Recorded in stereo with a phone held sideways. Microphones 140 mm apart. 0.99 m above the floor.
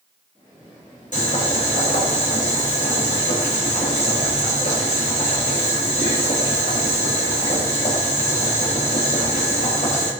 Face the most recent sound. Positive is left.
turn(degrees=65)  # may be behind; listen again after turning